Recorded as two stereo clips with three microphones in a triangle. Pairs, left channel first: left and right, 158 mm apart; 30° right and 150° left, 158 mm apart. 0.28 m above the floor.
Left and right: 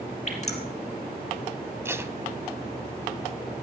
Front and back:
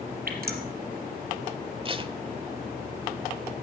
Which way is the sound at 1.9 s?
160° right.